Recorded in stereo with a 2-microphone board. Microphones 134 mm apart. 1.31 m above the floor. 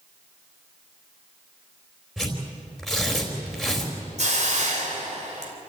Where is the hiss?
60° right (ahead or behind), 3 m.